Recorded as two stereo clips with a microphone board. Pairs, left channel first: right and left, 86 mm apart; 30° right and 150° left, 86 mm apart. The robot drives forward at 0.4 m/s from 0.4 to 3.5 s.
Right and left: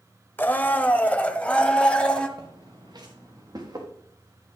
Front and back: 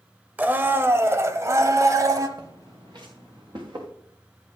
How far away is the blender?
About 0.6 m.